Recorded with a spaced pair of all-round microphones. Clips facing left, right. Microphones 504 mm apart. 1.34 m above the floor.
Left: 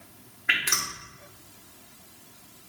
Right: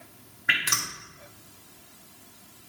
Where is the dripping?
35° right (ahead or behind), 1.3 m.